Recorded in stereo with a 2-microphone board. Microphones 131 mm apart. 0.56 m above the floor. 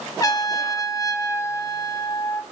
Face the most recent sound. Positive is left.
turn(degrees=30)  # may be behind; listen again after turning